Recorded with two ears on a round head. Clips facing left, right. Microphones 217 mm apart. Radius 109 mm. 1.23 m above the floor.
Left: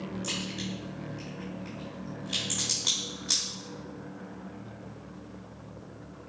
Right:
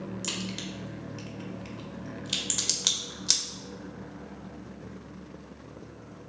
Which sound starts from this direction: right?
A crack, at 0.2 s.